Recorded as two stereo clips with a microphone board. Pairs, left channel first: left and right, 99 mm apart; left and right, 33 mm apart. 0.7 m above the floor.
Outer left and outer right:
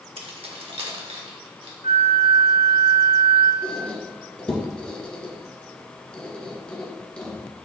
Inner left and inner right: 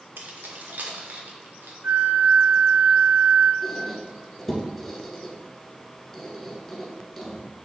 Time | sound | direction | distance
0.2 | keys jangling | 70° right (ahead or behind) | 1.0 m
1.8 | a flute | 75° right (ahead or behind) | 1.0 m
3.6 | a squeak | 10° left (ahead or behind) | 1.7 m